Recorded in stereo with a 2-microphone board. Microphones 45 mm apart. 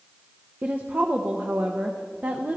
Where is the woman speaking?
40° right (ahead or behind), 0.8 m.